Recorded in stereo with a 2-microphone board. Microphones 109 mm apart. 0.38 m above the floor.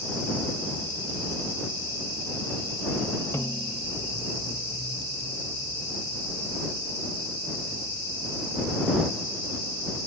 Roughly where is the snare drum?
Centre.